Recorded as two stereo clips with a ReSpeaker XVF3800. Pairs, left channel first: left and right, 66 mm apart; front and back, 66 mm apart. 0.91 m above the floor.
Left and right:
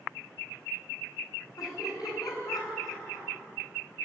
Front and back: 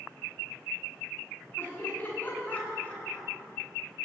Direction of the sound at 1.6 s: 60° left.